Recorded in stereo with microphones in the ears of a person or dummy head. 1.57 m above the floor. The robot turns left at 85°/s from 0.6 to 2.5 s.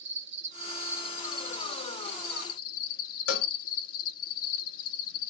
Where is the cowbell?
80° left, 0.9 m.